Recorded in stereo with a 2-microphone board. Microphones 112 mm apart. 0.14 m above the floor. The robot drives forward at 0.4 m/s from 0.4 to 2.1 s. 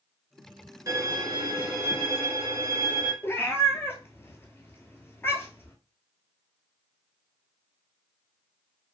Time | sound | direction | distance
0.9 | a violin | 35° right (ahead or behind) | 0.9 m
3.2 | a cat meowing | 25° left (ahead or behind) | 0.6 m